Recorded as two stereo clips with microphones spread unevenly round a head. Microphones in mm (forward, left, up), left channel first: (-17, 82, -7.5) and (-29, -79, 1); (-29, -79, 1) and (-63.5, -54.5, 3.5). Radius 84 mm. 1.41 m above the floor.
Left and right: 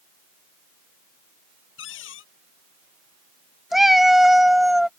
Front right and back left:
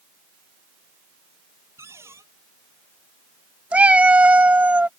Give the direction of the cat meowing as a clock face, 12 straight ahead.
6 o'clock.